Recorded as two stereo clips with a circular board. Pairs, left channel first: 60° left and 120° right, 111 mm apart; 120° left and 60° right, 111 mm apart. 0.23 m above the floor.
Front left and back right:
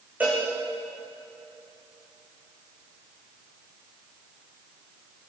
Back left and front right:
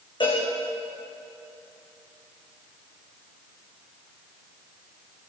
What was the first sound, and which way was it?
A cowbell, 165° left.